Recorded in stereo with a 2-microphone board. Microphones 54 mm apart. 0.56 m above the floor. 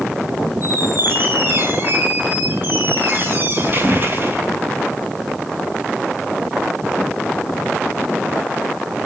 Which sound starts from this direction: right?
A squeak, at 0.6 s.